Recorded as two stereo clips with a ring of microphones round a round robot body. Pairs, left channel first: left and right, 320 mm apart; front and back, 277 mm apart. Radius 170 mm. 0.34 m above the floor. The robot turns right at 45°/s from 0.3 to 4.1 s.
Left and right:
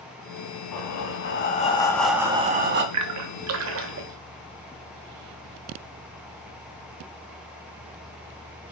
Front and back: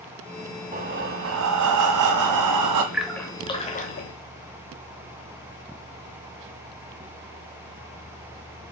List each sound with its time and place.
0.7 s breathing: 120° left, 1.3 m; by 2.8 s 145° right, 1.3 m
2.9 s a splash: 95° right, 1.0 m; by 4.1 s 45° right, 1.0 m